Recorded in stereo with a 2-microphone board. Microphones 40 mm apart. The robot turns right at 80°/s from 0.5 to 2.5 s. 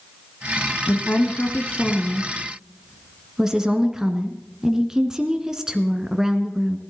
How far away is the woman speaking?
About 1.4 m.